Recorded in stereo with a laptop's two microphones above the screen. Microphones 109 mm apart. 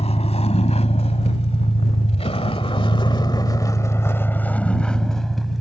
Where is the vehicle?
75° left (ahead or behind); by 5.6 s centre (ahead or behind).